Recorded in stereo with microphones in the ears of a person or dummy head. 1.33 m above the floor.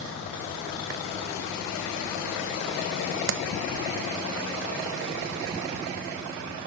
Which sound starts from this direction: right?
A clap, at 3.3 s.